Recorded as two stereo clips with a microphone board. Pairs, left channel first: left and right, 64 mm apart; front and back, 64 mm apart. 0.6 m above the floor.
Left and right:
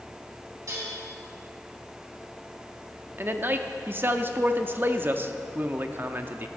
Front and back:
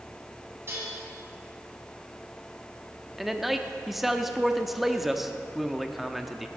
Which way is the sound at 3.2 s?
95° right.